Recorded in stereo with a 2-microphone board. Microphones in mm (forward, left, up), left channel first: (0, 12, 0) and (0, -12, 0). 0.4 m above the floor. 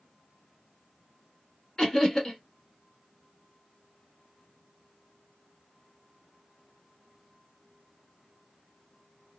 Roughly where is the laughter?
Left.